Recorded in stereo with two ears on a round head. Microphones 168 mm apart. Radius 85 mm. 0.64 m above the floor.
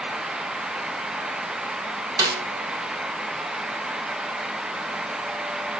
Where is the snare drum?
20° right (ahead or behind), 2.5 m.